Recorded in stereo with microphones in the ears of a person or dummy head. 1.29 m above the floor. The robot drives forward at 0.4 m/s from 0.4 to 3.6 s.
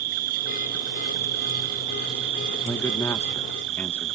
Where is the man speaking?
10° left (ahead or behind).